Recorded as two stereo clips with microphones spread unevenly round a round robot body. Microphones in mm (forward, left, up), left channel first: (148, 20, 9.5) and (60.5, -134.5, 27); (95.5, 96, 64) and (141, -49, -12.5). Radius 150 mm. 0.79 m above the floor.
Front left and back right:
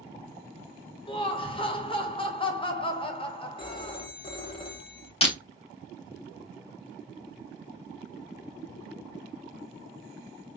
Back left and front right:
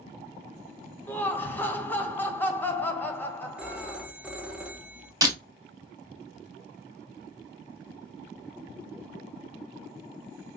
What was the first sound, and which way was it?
Laughter, 10° left.